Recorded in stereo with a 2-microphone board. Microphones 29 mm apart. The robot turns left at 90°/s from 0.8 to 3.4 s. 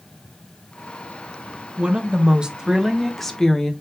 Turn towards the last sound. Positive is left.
turn(degrees=145)